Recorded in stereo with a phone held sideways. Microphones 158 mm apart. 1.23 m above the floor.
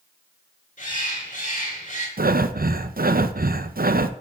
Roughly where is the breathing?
Right.